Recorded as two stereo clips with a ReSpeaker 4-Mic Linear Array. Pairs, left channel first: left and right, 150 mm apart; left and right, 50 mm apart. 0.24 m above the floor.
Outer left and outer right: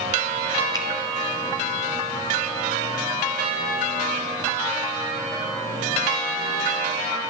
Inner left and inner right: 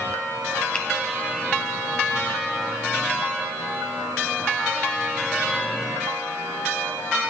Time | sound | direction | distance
0.7 | a finger snap | 25° left (ahead or behind) | 1.1 m